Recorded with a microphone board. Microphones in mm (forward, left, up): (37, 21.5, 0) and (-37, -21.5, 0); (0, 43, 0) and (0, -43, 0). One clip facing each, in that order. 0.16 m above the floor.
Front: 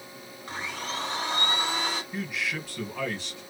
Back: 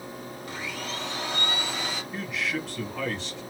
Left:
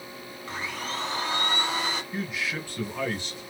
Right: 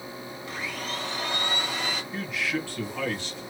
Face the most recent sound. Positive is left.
turn(degrees=105)